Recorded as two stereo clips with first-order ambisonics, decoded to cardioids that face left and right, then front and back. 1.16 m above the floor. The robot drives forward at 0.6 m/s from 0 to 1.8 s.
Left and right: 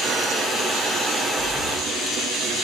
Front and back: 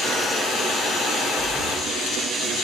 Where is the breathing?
110° left, 1.6 m; by 1.8 s 120° left, 1.7 m.